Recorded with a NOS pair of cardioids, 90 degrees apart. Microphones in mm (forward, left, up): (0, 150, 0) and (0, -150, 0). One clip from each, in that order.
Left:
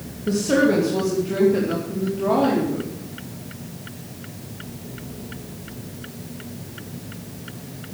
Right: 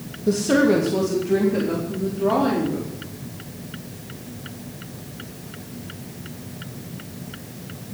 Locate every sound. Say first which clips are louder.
0.3 s a woman speaking: right 1 dB; 25° right, 3 m; by 2.9 s straight ahead, 4.5 m